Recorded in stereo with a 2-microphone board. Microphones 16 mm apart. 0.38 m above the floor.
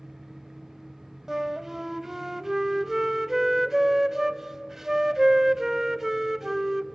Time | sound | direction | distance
1.3 | a flute | 15° right (ahead or behind) | 0.5 m